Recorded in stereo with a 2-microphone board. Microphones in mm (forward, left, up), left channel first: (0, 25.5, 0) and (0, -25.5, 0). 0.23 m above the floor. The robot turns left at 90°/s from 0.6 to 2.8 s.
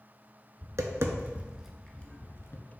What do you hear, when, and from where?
0.6 s tapping: 75° right (ahead or behind), 0.6 m; by 2.6 s 80° left, 0.6 m